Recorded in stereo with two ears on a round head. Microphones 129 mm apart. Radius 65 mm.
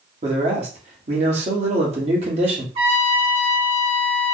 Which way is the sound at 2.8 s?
35° right (ahead or behind).